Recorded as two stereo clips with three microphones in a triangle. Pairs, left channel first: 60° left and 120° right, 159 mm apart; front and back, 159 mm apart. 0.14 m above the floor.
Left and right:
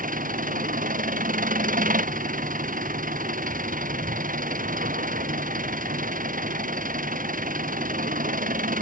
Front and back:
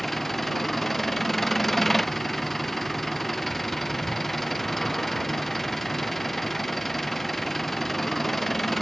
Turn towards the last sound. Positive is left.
turn(degrees=-90)